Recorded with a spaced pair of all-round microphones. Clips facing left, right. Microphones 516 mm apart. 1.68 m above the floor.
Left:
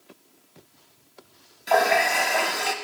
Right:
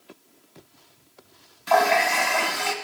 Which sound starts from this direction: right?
A running tap, at 1.7 s.